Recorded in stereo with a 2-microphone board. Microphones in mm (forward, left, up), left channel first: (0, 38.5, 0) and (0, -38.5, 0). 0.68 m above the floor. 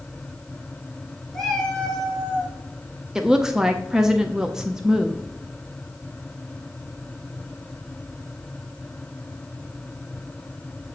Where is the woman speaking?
10° right (ahead or behind), 0.5 m.